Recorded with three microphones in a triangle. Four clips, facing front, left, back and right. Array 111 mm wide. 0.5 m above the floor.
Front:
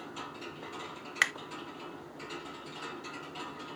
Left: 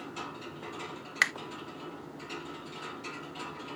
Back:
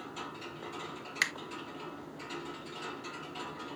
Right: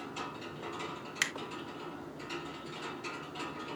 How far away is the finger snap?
About 0.9 m.